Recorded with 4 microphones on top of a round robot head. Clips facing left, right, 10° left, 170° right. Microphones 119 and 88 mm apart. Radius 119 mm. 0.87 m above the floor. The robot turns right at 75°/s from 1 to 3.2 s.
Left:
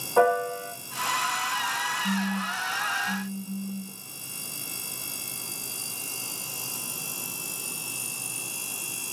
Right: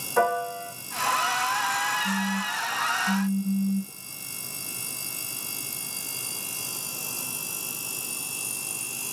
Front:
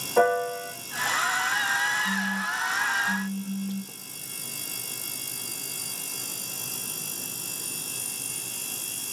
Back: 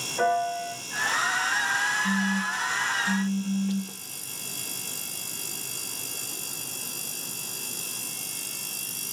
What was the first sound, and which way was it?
A piano, 20° left.